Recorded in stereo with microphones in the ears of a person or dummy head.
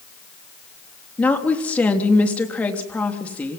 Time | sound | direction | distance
1.2 | a woman speaking | 10° left (ahead or behind) | 3 m